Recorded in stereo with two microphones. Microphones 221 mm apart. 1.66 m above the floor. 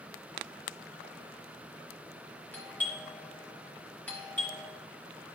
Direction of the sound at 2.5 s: 5° left (ahead or behind).